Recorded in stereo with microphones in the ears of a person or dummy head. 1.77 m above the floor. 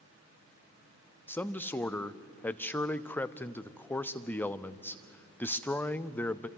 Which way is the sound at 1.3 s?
5° left (ahead or behind).